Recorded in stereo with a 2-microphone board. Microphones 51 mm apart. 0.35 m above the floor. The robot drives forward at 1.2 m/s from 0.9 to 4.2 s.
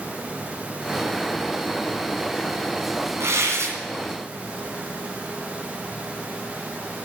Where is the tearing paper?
70° right (ahead or behind), 2.5 m.